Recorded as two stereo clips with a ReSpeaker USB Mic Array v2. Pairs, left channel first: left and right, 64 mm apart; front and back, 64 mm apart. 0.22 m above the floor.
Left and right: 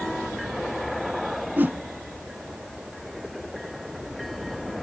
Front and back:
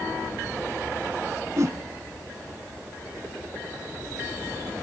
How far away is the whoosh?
About 0.6 m.